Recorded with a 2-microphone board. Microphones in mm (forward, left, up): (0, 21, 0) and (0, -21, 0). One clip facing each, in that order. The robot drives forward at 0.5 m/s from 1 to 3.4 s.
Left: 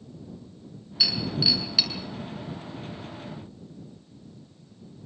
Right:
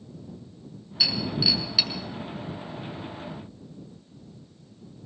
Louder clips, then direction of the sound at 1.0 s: Even; 5° right (ahead or behind).